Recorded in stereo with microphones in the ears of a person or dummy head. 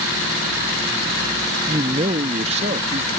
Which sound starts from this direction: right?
A man speaking, at 1.7 s.